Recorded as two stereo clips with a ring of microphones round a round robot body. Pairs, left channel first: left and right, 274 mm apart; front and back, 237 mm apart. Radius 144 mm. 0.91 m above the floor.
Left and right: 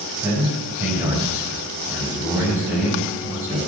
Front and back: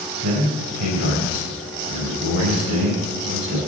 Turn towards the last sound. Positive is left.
turn(degrees=-175)